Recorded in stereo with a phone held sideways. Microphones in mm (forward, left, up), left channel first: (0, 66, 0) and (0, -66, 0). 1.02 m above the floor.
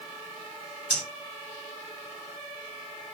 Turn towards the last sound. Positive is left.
turn(degrees=40)  # may be behind; listen again after turning